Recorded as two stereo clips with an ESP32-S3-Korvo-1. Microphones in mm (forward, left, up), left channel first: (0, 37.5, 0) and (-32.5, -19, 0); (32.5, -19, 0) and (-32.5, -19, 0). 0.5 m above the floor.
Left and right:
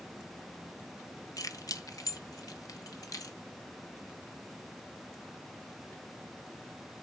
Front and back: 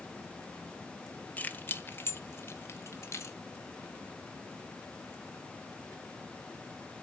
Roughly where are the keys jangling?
Ahead left.